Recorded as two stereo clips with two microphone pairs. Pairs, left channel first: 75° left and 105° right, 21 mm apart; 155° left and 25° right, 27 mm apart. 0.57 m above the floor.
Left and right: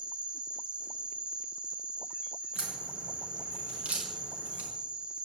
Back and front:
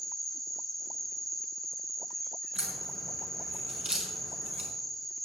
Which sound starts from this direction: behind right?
An insect, at 0.0 s.